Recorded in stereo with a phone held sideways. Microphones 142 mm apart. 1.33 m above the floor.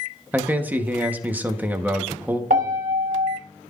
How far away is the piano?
About 2.0 m.